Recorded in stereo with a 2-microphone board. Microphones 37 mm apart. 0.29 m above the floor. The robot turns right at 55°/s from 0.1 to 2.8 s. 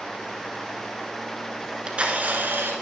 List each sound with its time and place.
1.6 s a camera shutter: 160° right, 1.0 m; by 2.7 s 100° right, 1.0 m